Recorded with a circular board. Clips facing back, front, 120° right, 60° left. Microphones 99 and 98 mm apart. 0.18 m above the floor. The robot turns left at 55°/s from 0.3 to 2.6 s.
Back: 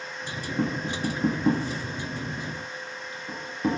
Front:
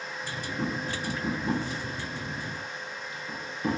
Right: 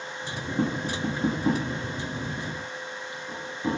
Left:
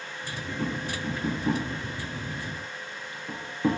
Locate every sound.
0.6 s tapping: 130° right, 7.5 m; by 3.8 s 120° left, 7.5 m